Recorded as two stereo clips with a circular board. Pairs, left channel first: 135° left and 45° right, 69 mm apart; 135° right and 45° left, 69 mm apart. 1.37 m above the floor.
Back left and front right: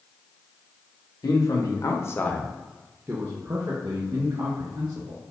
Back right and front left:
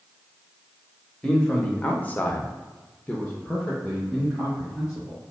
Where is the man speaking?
150° left, 1.0 m; by 5.2 s 50° right, 1.8 m.